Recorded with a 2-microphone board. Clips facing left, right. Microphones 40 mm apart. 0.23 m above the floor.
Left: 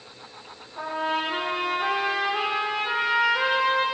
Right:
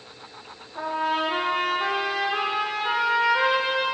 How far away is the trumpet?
About 7 m.